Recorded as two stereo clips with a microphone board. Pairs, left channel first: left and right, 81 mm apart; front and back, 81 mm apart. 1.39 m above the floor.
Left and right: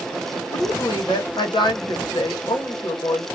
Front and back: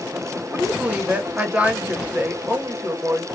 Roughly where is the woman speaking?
Left.